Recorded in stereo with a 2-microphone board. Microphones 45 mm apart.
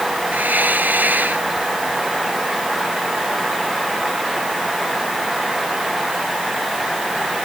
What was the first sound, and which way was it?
A hiss, 40° right (ahead or behind).